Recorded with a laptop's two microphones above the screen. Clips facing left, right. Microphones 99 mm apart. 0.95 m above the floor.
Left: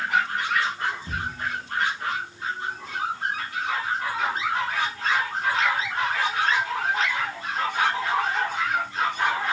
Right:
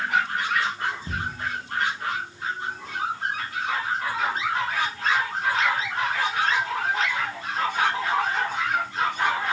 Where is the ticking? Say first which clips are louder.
Right 3 dB; 15° right (ahead or behind), 1.1 m.